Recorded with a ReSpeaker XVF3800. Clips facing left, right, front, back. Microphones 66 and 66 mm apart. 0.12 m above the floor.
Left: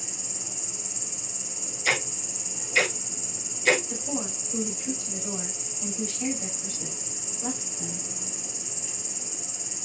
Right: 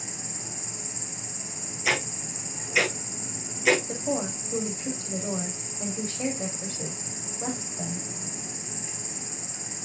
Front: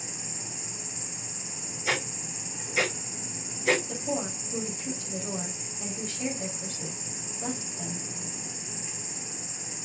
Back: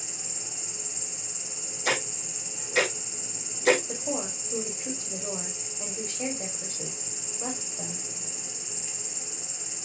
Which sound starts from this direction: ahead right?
An insect, at 0.0 s.